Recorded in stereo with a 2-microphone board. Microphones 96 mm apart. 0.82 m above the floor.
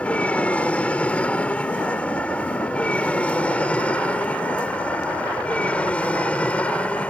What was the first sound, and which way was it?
An aircraft, 15° left (ahead or behind).